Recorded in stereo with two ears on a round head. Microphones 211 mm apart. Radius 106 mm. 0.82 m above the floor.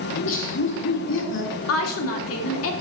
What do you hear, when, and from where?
0.1 s laughter: 55° left (ahead or behind), 2 m
1.7 s a woman speaking: 60° left (ahead or behind), 1.7 m